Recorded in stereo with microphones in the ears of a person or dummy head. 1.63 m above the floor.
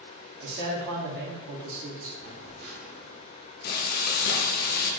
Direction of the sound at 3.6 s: 55° left (ahead or behind).